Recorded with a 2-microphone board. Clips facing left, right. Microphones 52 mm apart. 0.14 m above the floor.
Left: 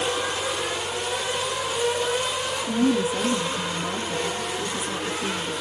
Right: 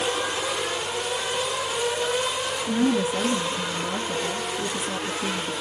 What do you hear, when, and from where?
2.6 s a woman speaking: 35° right (ahead or behind), 2.5 m